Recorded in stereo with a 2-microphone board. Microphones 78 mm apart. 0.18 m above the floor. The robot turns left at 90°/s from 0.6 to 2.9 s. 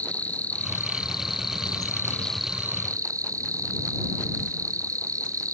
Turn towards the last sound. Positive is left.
turn(degrees=-45)